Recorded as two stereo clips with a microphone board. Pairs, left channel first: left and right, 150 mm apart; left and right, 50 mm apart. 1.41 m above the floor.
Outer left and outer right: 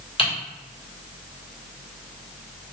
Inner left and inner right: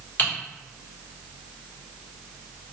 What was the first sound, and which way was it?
Typing on a keyboard, 35° left (ahead or behind).